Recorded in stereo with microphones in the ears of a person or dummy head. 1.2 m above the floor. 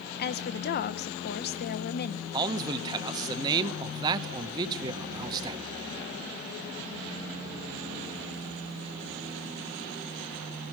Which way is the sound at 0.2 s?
50° left (ahead or behind).